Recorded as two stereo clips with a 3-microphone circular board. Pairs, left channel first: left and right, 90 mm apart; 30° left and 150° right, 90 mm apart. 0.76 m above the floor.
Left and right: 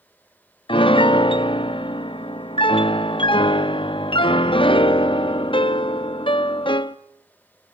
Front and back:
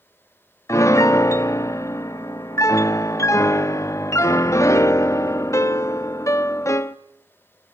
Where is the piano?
85° left, 0.5 m.